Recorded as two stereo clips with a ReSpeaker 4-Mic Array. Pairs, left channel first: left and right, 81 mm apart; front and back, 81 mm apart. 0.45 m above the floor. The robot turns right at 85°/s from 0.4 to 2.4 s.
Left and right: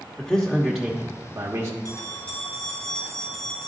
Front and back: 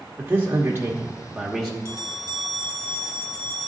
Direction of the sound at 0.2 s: 155° left.